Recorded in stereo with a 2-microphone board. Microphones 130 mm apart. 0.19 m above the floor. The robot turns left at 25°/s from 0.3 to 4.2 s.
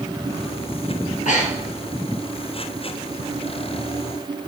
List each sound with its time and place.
1.0 s breathing: 75° left (ahead or behind), 1.3 m; by 1.8 s 55° left (ahead or behind), 1.3 m